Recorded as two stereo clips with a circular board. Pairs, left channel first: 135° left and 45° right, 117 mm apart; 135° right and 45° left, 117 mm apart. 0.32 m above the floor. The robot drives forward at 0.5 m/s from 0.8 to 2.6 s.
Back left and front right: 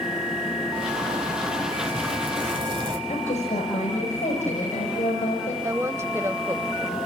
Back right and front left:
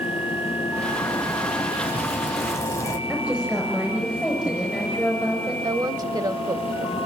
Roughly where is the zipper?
Ahead right.